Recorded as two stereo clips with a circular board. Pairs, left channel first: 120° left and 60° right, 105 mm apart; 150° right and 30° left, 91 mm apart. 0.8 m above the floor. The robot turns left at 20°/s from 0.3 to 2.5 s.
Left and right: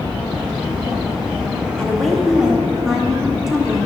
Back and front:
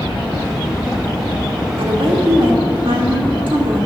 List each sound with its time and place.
1.8 s a woman speaking: 40° left, 1.7 m; by 3.9 s 25° left, 1.7 m